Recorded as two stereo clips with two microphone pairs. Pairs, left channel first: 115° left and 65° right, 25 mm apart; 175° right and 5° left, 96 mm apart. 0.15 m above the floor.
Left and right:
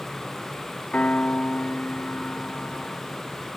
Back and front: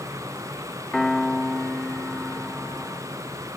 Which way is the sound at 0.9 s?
100° left.